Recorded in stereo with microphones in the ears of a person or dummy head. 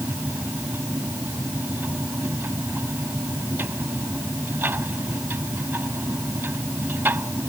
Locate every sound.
0.0 s a machine running: 10° right (ahead or behind)